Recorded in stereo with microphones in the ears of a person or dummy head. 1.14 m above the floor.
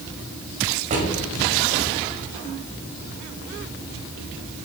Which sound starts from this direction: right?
A drawer, at 0.9 s.